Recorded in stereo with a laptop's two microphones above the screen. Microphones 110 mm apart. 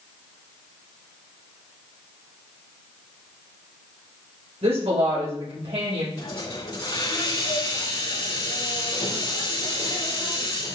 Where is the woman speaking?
70° right (ahead or behind), 5 m.